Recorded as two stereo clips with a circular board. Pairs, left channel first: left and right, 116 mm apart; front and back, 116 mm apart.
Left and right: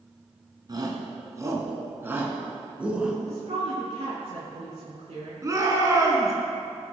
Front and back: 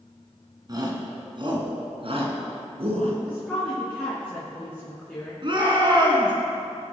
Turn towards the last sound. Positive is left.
turn(degrees=-145)